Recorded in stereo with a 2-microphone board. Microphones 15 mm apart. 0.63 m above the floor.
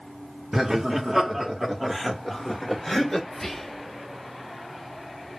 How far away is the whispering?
About 0.7 m.